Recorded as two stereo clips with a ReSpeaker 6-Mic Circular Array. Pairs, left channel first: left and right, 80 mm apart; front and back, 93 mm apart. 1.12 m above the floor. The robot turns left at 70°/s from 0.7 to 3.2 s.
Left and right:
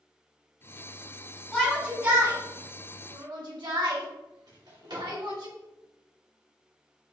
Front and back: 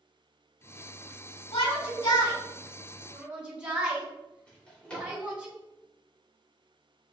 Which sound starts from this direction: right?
A drawer, at 4.5 s.